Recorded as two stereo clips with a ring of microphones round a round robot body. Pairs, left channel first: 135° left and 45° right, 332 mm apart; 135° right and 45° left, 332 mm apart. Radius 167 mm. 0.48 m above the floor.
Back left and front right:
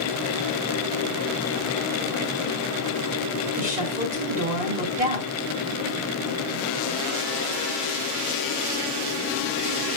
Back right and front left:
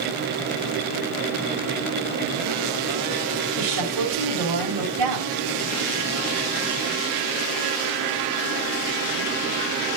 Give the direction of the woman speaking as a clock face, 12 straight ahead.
11 o'clock.